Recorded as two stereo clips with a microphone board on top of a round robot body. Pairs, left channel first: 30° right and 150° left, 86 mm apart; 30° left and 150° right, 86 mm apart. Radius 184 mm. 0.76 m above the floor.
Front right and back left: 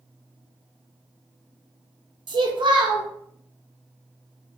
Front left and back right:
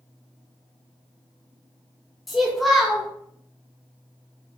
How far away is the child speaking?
About 0.7 m.